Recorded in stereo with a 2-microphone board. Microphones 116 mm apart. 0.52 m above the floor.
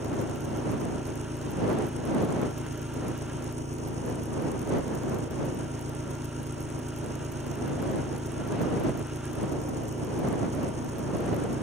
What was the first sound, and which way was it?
An engine running, 75° right (ahead or behind).